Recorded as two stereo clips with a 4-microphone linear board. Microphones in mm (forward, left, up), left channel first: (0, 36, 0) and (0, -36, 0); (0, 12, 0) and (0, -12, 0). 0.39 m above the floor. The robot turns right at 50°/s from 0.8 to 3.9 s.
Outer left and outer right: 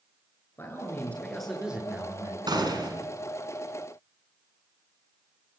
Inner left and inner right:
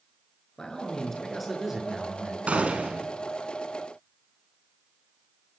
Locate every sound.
0.6 s a man speaking: 145° left, 7 m; by 2.4 s 135° right, 7 m
2.5 s a gunshot: 70° right (ahead or behind), 5 m; by 3.1 s 65° right (ahead or behind), 5 m